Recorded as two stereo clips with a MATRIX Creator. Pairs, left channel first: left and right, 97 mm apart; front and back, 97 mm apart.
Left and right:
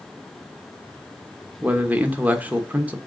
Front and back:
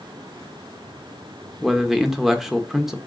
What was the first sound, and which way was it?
A man speaking, 105° right.